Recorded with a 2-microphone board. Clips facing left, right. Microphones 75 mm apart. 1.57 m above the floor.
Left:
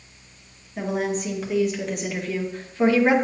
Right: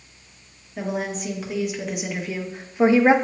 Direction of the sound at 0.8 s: 5° left (ahead or behind).